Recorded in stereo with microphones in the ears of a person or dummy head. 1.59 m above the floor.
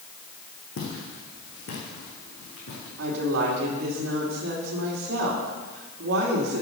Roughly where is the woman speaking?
Right.